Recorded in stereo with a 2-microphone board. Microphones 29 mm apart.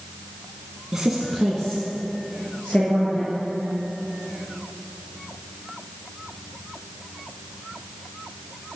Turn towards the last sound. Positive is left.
turn(degrees=45)  # may be behind; listen again after turning